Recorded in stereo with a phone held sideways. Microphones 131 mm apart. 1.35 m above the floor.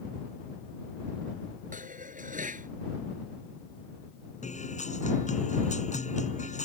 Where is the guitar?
65° left (ahead or behind).